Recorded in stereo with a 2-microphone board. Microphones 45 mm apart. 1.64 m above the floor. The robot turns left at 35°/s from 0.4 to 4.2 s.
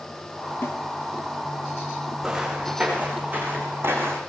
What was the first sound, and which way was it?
A snare drum, 60° left (ahead or behind).